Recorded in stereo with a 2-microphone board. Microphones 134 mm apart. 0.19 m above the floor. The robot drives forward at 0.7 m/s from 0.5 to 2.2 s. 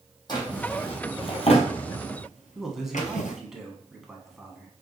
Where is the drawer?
30° left (ahead or behind), 1.7 m; by 3.4 s 70° left (ahead or behind), 0.9 m.